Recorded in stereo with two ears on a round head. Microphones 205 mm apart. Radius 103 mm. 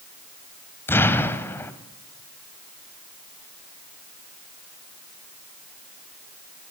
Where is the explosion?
10° left (ahead or behind), 1.7 m.